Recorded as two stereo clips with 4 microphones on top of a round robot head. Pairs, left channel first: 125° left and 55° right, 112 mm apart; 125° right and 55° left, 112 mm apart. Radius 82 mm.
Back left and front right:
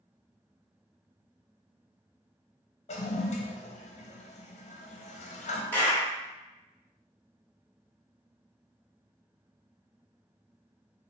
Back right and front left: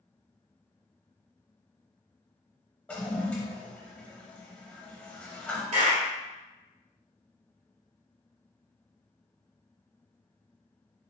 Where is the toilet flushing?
155° left, 0.6 m.